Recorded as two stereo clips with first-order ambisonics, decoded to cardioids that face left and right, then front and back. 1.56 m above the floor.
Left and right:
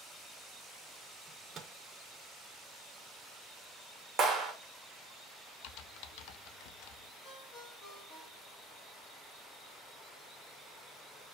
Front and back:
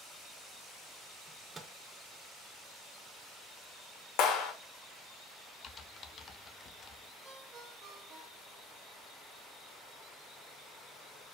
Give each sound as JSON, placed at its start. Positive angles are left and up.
{"t": 1.3, "sound": "a microwave", "azimuth_deg": -120, "distance_m": 0.6}
{"t": 4.2, "sound": "a clap", "azimuth_deg": -20, "distance_m": 1.0}
{"t": 5.6, "sound": "typing on a keyboard", "azimuth_deg": 65, "distance_m": 0.5}
{"t": 7.2, "sound": "a ringtone", "azimuth_deg": 130, "distance_m": 1.3}